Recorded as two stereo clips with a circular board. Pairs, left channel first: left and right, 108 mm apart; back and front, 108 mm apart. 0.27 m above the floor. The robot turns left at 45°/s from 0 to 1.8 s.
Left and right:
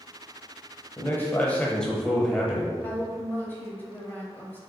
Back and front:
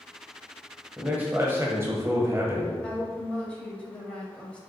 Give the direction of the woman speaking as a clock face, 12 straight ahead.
8 o'clock.